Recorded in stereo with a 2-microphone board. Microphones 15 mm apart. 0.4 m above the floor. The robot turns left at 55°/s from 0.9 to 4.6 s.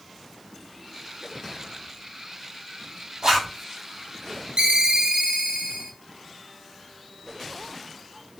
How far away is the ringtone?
About 0.8 m.